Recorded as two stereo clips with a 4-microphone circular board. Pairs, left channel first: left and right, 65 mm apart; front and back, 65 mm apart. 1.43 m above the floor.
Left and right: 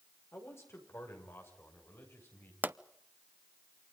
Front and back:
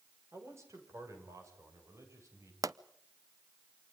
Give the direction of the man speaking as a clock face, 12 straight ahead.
7 o'clock.